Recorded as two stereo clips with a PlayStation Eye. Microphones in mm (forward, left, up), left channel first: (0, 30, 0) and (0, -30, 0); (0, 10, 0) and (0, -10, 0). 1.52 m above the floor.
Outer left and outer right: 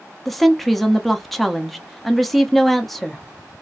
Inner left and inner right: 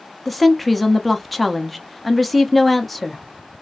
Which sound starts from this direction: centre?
A woman speaking, at 0.2 s.